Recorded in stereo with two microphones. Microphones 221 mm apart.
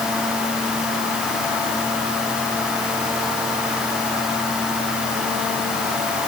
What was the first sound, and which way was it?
Only background noise.